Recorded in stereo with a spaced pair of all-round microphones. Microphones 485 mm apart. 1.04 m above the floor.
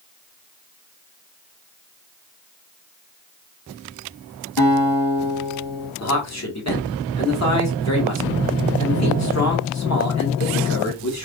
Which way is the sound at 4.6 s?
55° left (ahead or behind).